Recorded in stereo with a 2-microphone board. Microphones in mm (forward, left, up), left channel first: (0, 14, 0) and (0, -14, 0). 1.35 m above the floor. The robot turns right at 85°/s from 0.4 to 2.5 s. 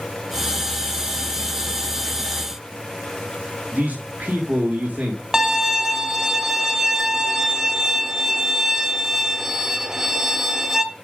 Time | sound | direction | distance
3.7 | a man speaking | 75° right (ahead or behind) | 2 m
5.3 | a violin | 20° right (ahead or behind) | 1.1 m